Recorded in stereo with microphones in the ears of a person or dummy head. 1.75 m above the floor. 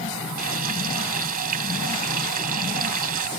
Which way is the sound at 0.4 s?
45° right (ahead or behind).